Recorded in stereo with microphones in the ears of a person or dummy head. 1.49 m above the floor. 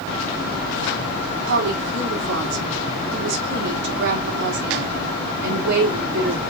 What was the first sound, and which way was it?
A woman speaking, 55° right (ahead or behind).